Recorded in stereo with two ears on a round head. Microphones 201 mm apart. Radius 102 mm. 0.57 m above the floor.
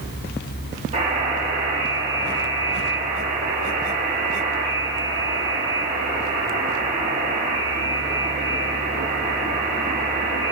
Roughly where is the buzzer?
Right.